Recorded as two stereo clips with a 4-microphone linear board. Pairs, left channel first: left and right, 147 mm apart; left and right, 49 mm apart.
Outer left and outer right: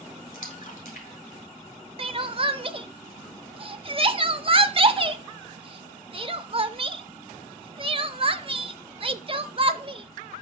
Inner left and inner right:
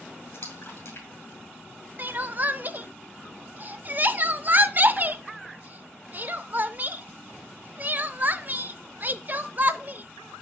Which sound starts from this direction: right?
Crying, at 2.0 s.